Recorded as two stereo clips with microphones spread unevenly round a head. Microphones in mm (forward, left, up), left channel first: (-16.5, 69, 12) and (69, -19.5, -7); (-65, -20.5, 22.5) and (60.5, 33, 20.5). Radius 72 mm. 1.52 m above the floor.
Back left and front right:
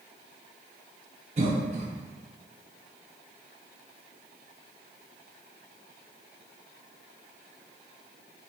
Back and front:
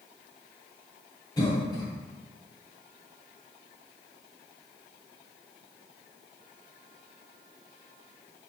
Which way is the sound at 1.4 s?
90° right.